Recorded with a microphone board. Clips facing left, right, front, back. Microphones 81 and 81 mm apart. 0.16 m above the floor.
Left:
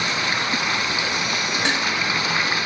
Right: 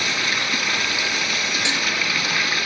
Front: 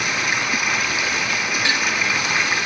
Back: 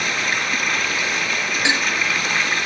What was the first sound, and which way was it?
Running water, 70° left.